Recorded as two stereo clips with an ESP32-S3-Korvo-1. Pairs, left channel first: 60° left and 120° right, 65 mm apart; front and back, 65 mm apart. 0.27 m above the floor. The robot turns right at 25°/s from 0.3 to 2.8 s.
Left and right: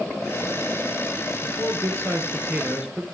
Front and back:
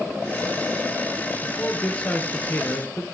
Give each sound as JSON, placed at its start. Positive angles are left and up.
{"t": 1.4, "sound": "a man speaking", "azimuth_deg": -85, "distance_m": 4.0}